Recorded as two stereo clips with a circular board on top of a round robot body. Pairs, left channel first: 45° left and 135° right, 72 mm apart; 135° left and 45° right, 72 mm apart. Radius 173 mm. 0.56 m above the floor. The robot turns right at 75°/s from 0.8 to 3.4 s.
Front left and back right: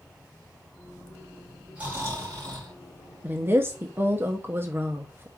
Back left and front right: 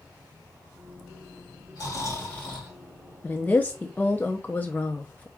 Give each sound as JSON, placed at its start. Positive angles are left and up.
{"t": 1.8, "sound": "snoring", "azimuth_deg": 155, "distance_m": 3.0}
{"t": 3.2, "sound": "a woman speaking", "azimuth_deg": 175, "distance_m": 0.8}